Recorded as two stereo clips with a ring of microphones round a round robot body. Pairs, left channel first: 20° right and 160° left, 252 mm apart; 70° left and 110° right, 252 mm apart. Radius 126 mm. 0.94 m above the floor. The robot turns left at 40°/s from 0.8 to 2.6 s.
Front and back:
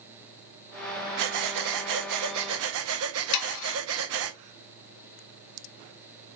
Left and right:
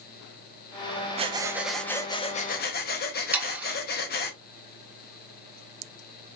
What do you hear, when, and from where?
1.2 s breathing: straight behind, 0.9 m; by 4.3 s 120° left, 0.9 m
3.3 s sawing: 30° right, 1.1 m